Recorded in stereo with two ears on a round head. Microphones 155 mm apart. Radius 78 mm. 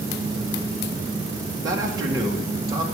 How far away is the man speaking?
About 1.7 m.